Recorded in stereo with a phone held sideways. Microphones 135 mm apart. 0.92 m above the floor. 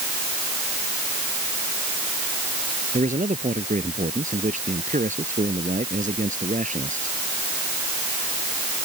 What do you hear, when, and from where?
2.9 s a man speaking: 70° right (ahead or behind)